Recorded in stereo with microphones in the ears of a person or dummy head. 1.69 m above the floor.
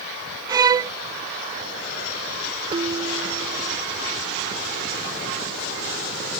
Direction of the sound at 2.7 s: 30° right (ahead or behind).